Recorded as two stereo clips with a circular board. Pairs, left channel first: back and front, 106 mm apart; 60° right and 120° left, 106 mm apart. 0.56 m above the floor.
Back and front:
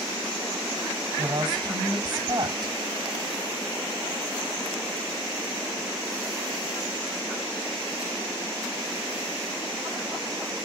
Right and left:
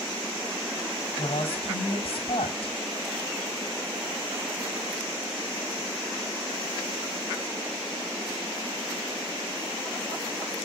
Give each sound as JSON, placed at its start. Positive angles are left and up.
{"t": 1.2, "sound": "a woman speaking", "azimuth_deg": -40, "distance_m": 4.5}